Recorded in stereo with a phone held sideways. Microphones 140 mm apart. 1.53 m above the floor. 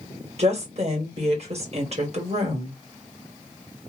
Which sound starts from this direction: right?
A woman speaking, at 0.4 s.